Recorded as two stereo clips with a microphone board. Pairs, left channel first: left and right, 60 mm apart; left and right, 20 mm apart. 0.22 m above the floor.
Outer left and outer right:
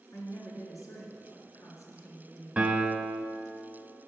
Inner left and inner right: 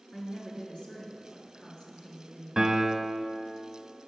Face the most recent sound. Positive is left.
turn(degrees=-15)  # may be behind; listen again after turning